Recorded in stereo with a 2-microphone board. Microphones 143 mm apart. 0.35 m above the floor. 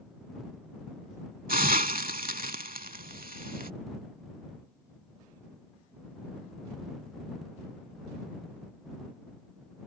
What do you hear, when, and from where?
1.5 s a hiss: 80° right